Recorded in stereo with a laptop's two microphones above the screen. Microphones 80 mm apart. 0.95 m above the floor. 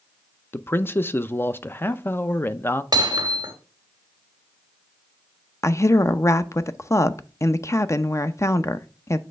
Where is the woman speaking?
40° left (ahead or behind), 0.5 m.